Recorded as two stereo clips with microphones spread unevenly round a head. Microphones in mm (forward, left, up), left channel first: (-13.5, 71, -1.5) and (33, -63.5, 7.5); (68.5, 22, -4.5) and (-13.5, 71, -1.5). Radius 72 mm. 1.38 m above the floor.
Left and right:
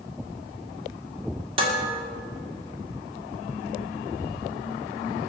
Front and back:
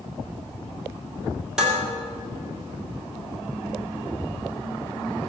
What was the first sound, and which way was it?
Dishes clattering, 125° right.